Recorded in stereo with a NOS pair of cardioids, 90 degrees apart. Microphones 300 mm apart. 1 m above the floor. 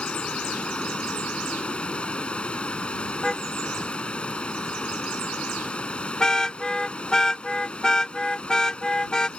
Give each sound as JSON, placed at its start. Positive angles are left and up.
{"t": 0.0, "sound": "running water", "azimuth_deg": 5}
{"t": 3.2, "sound": "a car horn", "azimuth_deg": 5}